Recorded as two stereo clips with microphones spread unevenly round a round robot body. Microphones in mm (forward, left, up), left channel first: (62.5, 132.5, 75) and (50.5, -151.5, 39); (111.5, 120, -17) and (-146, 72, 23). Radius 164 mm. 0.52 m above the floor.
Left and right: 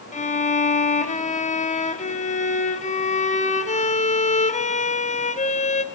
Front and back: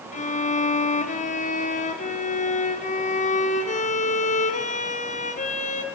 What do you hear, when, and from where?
0.1 s a violin: 25° left, 1.0 m